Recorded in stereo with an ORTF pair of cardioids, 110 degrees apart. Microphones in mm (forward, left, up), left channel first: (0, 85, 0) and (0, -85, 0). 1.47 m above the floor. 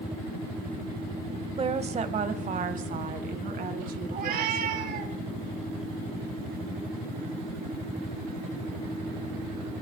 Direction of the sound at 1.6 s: 35° right.